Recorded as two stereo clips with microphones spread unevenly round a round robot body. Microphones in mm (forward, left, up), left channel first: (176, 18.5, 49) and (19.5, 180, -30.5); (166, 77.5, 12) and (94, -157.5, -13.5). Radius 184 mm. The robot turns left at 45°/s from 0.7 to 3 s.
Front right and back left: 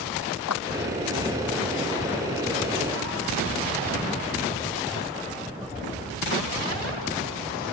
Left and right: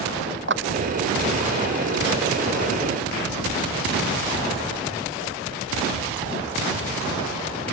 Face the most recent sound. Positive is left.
turn(degrees=-170)